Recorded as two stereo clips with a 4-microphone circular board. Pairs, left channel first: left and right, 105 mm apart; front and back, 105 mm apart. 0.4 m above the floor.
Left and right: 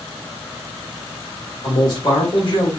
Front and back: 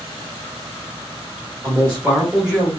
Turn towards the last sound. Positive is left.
turn(degrees=75)